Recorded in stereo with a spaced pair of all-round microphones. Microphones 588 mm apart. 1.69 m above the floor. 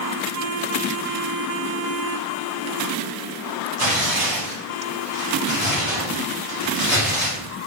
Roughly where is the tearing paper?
Right.